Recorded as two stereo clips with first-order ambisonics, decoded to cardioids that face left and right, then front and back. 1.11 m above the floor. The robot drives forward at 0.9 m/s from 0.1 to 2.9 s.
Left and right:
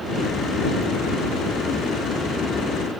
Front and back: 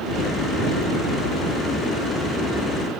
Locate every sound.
Only background noise.